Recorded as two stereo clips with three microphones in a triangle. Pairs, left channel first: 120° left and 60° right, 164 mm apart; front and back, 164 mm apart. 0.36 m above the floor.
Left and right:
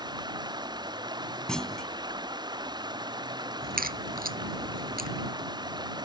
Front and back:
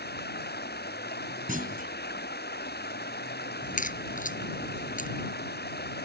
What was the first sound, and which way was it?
Running water, 5° left.